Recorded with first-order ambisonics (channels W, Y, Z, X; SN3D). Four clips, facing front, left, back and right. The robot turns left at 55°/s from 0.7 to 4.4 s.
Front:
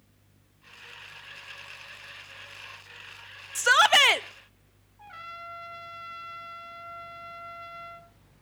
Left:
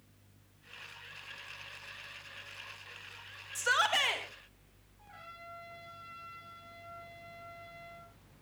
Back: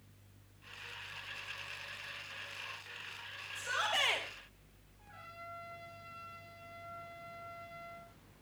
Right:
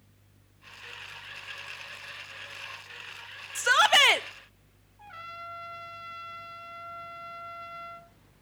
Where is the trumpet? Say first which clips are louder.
Right 9 dB, front 10 dB; 35° right, 4.5 m.